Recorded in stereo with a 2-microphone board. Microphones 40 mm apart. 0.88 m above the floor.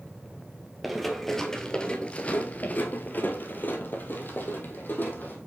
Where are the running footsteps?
Centre (ahead or behind), 1.2 m; by 5.4 s 45° left (ahead or behind), 2 m.